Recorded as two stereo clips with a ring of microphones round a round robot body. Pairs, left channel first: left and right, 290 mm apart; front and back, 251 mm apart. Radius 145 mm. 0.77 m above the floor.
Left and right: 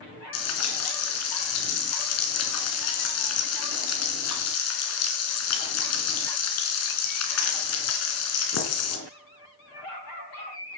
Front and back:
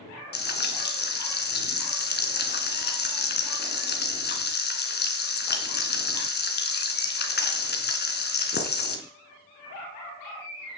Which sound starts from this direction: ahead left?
Frying, at 0.3 s.